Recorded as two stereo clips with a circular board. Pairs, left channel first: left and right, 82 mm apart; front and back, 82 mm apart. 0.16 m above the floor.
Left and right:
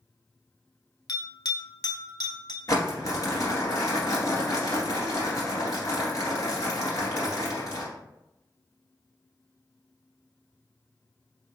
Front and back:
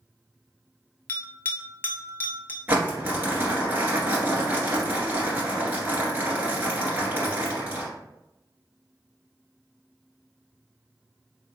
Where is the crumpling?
120° left, 1.7 m.